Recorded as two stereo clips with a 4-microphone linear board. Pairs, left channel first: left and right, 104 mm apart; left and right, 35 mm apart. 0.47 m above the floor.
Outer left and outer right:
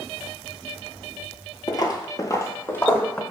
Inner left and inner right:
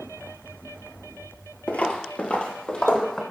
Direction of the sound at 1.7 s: 40° left (ahead or behind).